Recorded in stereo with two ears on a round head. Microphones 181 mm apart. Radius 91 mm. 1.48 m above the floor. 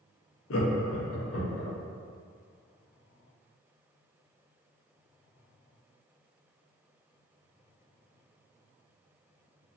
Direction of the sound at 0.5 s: 70° left (ahead or behind).